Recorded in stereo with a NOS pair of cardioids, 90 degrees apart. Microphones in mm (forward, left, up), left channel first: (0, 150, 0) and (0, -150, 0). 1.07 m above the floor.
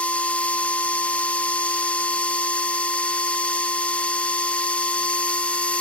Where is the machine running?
5° left, 0.7 m.